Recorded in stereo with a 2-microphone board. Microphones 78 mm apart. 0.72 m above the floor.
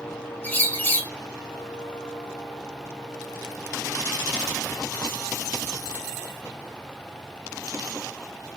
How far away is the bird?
About 1.2 m.